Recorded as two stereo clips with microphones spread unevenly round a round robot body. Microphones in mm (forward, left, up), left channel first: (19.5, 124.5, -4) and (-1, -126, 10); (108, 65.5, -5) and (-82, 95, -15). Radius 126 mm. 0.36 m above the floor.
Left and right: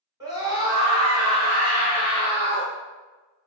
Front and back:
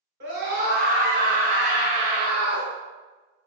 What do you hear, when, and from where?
0.2 s a scream: 175° right, 1.9 m; by 2.7 s 125° right, 1.1 m